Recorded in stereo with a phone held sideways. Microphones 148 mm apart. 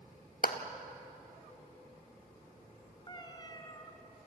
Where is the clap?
80° left, 1.4 m.